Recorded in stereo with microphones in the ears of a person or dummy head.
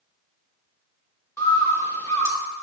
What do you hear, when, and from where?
1.4 s a bird: 15° left (ahead or behind), 1.1 m